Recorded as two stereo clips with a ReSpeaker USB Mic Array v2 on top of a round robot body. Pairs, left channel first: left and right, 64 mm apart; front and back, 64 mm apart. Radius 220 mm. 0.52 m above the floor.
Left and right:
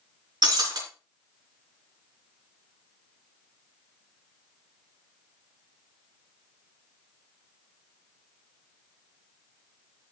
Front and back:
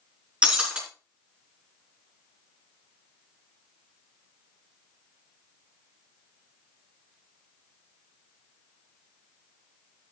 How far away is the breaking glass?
About 4 m.